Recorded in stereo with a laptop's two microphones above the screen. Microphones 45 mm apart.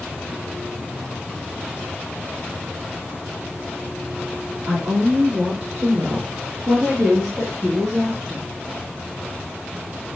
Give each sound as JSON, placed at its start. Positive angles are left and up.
{"t": 4.7, "sound": "a woman speaking", "side_deg": -45, "distance_m": 3.0}